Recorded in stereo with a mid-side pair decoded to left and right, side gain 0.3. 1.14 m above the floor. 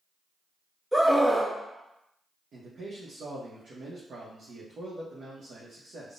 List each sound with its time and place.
0.9 s a scream: 5° right, 1.3 m
2.5 s a man speaking: 70° right, 0.8 m